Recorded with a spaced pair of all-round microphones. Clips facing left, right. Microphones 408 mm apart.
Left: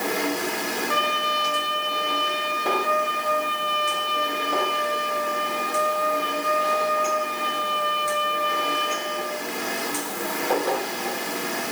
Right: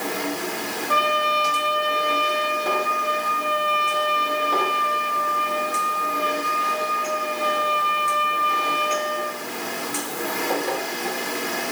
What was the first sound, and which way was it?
A trumpet, 70° right (ahead or behind).